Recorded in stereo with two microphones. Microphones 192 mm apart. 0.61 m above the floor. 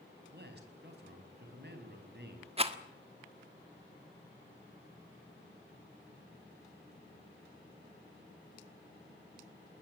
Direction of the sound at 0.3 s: 55° right (ahead or behind).